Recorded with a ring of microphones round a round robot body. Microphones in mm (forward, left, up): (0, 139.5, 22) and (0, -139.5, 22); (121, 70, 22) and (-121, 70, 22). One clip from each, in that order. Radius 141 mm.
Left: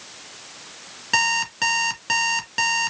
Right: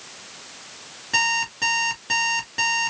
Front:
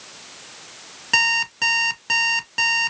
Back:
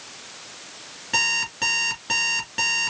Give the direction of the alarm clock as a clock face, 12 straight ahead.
11 o'clock.